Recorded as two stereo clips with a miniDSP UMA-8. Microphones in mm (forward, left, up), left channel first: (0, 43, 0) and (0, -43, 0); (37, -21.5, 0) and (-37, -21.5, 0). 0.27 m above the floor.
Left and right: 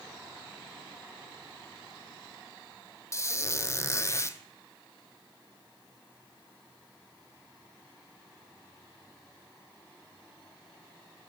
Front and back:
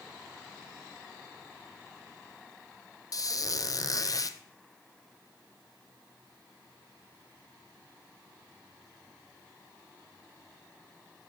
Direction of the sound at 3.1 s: 35° left.